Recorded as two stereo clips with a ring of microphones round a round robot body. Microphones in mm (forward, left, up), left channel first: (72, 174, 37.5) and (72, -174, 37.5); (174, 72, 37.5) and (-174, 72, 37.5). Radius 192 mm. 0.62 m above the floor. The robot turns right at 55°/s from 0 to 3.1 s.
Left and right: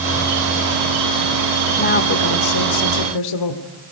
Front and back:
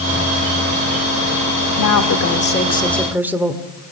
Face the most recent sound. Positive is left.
turn(degrees=95)